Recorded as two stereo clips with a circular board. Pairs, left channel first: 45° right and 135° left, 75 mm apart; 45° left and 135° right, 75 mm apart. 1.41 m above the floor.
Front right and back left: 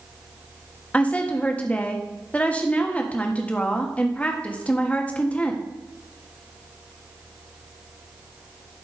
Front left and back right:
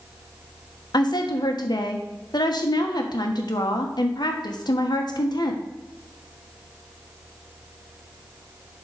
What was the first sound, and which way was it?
A woman speaking, 25° left.